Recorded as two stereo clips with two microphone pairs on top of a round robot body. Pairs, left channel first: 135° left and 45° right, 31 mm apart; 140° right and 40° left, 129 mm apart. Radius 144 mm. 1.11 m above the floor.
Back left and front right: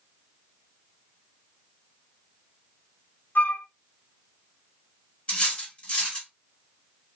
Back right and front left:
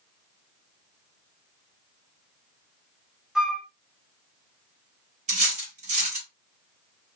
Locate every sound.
3.4 s a flute: 125° left, 0.7 m
5.3 s cutlery clinking: 75° left, 1.3 m